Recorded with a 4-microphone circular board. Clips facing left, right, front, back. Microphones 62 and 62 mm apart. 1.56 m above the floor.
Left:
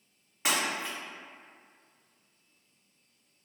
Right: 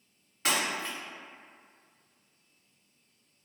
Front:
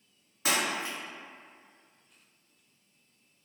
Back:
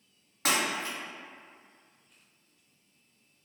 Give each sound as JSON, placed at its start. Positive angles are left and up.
{"t": 0.5, "sound": "breaking glass", "azimuth_deg": 160, "distance_m": 1.7}